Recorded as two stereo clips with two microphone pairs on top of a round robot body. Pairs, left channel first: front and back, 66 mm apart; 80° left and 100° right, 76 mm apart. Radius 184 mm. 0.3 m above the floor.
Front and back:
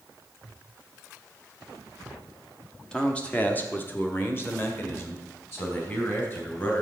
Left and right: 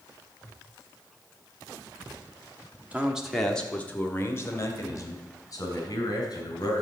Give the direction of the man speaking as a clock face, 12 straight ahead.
1 o'clock.